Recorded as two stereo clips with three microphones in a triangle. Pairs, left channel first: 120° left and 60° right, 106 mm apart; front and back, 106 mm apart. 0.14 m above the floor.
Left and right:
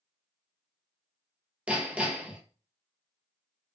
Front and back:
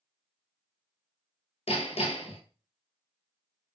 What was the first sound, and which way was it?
Hammering, 15° left.